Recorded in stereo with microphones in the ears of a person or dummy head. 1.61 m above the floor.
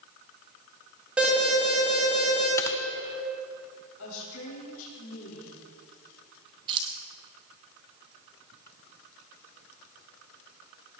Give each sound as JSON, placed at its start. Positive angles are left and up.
{"t": 1.2, "sound": "an alarm", "side_deg": -5, "distance_m": 7.0}
{"t": 2.6, "sound": "typing on a keyboard", "side_deg": 15, "distance_m": 0.8}
{"t": 4.0, "sound": "a woman speaking", "side_deg": 80, "distance_m": 4.0}
{"t": 6.7, "sound": "keys jangling", "side_deg": -25, "distance_m": 1.4}